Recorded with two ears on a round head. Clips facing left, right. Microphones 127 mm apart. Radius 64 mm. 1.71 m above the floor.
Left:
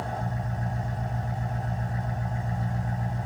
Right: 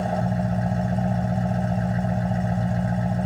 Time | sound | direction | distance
0.0 | an engine running | 75° right (ahead or behind) | 2.0 m